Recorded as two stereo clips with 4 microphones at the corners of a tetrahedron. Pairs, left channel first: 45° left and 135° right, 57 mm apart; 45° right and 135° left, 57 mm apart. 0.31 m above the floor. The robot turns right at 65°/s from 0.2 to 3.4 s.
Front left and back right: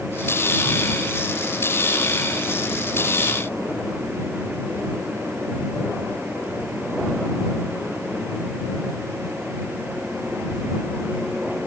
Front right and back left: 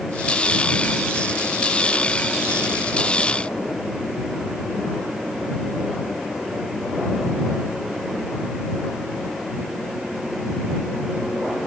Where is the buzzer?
No buzzer in this recording.